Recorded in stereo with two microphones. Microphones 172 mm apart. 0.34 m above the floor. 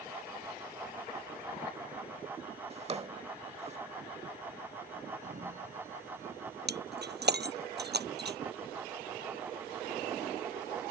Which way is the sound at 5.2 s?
45° right (ahead or behind).